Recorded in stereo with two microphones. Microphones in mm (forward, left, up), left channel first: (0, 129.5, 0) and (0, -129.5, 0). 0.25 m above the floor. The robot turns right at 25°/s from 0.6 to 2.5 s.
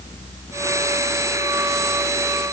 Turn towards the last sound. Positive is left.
No sound to turn to.